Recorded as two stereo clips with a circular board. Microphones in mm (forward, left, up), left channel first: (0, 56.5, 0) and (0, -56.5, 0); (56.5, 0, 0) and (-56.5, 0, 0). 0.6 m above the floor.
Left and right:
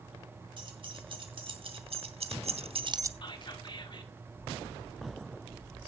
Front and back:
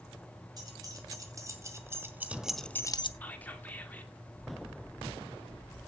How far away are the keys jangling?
About 3.5 m.